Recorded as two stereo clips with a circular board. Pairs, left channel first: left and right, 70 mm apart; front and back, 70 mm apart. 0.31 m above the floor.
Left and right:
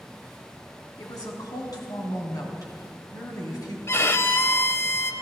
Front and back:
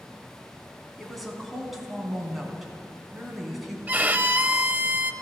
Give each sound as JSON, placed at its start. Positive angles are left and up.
{"t": 1.0, "sound": "a woman speaking", "azimuth_deg": 90, "distance_m": 3.0}
{"t": 3.9, "sound": "a violin", "azimuth_deg": 125, "distance_m": 0.6}